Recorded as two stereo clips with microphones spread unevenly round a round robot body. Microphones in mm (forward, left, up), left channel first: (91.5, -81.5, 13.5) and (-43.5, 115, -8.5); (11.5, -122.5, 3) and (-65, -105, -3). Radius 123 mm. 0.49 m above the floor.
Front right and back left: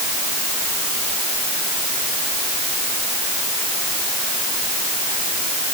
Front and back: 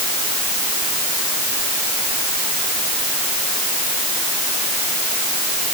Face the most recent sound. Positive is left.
No sound to turn to.